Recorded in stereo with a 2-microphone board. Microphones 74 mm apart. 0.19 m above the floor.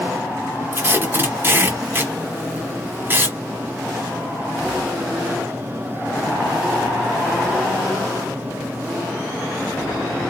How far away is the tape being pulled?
About 1.0 m.